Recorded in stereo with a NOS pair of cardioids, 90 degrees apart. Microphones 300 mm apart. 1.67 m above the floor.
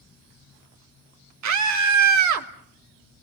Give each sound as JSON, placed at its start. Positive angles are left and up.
{"t": 1.4, "sound": "a scream", "azimuth_deg": -70, "distance_m": 3.0}